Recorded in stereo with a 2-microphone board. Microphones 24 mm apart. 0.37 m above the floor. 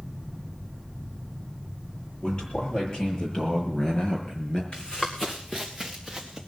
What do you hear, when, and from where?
2.2 s a man speaking: 40° left (ahead or behind), 8.5 m; by 4.6 s 30° left (ahead or behind), 5 m
4.7 s running footsteps: 35° left (ahead or behind), 2 m; by 6.4 s 10° right (ahead or behind), 3.5 m